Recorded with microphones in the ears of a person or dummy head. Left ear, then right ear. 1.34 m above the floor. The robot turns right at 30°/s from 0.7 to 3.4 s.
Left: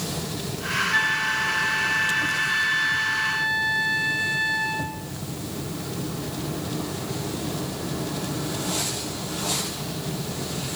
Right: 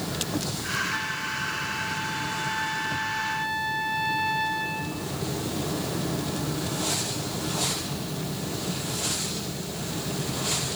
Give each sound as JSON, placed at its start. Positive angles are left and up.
{"t": 0.9, "sound": "a flute", "azimuth_deg": 100, "distance_m": 3.5}